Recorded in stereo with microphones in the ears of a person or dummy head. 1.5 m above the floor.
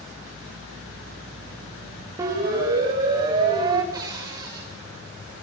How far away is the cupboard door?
About 6.5 m.